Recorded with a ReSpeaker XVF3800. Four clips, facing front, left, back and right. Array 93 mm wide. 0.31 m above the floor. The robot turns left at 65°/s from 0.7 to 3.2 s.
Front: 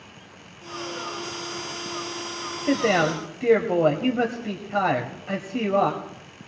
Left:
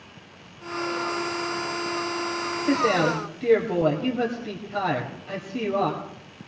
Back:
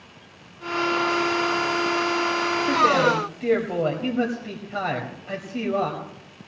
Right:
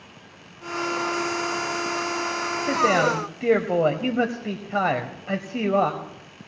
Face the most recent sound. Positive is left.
turn(degrees=-60)